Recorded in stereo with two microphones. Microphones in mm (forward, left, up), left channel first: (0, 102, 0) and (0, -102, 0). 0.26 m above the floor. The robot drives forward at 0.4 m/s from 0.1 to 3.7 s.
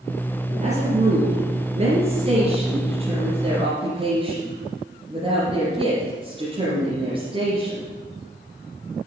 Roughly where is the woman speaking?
Right.